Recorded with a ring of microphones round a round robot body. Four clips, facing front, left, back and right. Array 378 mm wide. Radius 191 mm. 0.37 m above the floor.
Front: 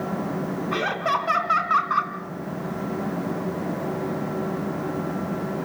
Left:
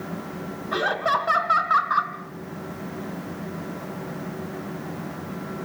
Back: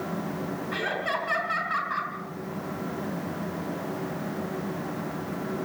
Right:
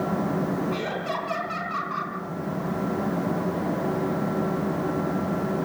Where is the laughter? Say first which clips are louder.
Left 5 dB, front 6 dB; 55° left, 3.5 m.